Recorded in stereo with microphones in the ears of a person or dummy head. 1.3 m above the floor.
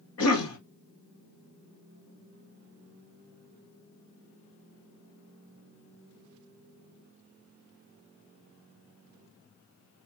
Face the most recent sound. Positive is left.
turn(degrees=75)  # may be behind; listen again after turning